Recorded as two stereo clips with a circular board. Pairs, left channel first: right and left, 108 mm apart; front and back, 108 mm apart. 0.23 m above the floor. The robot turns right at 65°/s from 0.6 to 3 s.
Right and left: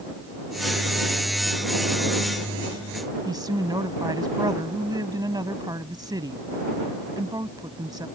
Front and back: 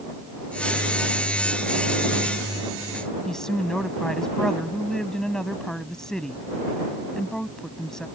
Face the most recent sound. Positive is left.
turn(degrees=80)